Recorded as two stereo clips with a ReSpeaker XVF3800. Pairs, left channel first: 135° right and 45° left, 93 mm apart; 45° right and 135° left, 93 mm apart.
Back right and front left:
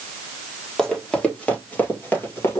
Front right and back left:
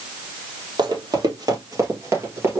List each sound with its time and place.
0.8 s running footsteps: 145° left, 2 m; by 2.6 s 175° right, 1.9 m